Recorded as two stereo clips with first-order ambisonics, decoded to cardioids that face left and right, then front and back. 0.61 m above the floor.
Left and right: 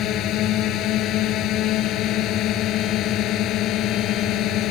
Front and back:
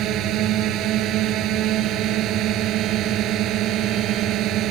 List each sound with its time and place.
0.0 s a drone: 135° left